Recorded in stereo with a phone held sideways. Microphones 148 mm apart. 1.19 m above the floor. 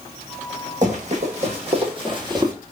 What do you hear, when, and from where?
0.8 s running footsteps: 55° right (ahead or behind), 2 m; by 2.5 s 25° right (ahead or behind), 1.3 m